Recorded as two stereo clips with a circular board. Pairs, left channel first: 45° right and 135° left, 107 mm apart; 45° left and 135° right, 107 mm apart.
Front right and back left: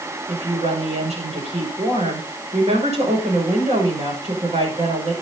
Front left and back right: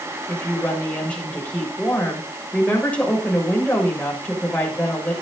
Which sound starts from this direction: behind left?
A woman speaking, at 0.3 s.